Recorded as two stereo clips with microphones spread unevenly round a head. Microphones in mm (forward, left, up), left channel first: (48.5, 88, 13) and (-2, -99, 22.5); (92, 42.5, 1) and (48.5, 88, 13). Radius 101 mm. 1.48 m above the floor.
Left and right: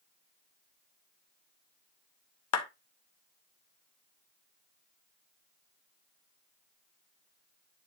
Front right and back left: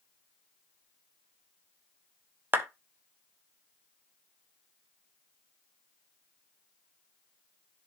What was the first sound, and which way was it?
A clap, 80° left.